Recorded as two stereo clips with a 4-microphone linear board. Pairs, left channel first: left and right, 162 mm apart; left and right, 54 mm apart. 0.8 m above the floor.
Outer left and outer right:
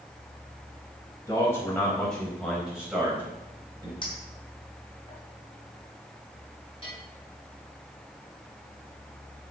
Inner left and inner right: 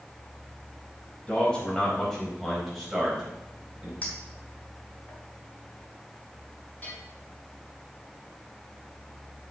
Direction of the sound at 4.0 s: 30° left (ahead or behind).